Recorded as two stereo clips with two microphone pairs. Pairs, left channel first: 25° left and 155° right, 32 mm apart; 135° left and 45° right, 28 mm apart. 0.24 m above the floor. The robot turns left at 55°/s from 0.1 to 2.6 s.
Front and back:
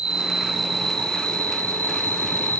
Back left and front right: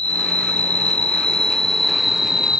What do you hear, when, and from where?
0.0 s an insect: 145° left, 0.8 m; by 2.6 s 10° left, 0.8 m